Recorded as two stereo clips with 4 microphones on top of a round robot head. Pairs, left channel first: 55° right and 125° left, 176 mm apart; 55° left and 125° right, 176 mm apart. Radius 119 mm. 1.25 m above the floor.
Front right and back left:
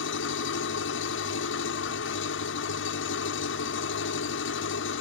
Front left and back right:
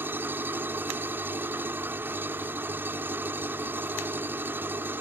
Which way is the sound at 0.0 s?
50° right.